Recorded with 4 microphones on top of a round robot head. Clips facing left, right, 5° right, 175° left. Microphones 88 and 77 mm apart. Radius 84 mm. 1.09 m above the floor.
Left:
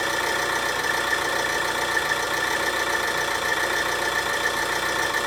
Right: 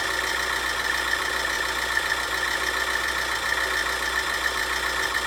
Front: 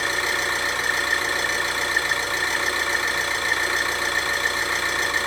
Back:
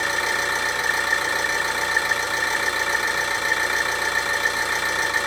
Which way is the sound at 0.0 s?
105° left.